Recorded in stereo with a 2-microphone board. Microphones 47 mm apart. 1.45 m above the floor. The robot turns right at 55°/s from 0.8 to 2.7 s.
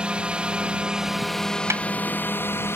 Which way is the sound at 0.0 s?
25° right.